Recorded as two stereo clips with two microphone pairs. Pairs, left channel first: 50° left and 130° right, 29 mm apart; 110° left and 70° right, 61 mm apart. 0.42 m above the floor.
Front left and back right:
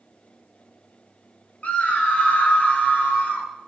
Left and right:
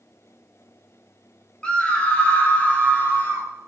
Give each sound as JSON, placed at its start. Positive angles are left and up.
{"t": 1.6, "sound": "a scream", "azimuth_deg": 40, "distance_m": 1.6}